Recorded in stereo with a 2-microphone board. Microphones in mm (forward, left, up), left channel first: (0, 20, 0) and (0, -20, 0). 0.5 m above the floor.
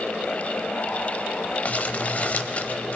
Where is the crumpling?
40° left (ahead or behind), 0.7 m.